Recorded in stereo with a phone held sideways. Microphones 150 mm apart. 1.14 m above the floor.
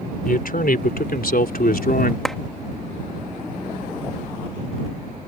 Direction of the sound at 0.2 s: 70° left (ahead or behind).